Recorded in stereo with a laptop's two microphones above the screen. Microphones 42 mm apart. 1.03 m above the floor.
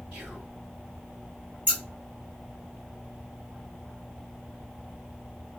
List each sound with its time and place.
0.1 s whispering: 30° right (ahead or behind), 2 m
1.7 s scissors: 35° right (ahead or behind), 1.9 m